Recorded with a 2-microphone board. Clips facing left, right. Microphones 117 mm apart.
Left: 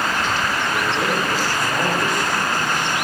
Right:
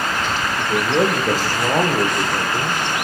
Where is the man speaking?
80° right, 8 m; by 2.8 s 70° right (ahead or behind), 7 m.